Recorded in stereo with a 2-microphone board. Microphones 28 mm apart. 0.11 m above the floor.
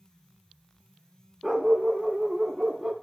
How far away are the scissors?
I don't hear scissors.